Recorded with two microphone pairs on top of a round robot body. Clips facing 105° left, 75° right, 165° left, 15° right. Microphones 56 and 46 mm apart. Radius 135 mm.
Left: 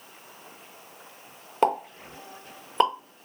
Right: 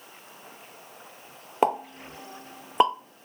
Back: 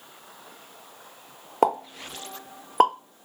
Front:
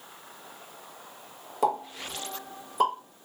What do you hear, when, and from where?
1.6 s a pop: 165° right, 0.9 m